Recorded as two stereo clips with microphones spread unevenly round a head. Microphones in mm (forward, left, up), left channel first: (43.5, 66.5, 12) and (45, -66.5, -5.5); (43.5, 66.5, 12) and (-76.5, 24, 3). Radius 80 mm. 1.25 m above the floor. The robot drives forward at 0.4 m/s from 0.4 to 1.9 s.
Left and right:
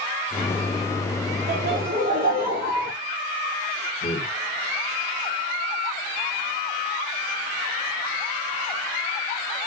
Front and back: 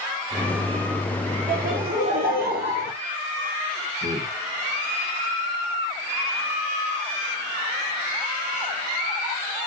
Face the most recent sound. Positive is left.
turn(degrees=140)